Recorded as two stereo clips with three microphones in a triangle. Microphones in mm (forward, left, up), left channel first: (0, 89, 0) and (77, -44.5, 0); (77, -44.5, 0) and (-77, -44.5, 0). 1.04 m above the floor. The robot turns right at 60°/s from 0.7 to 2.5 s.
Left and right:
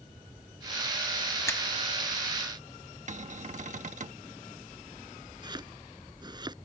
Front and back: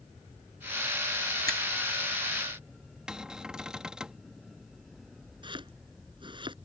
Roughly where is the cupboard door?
Right.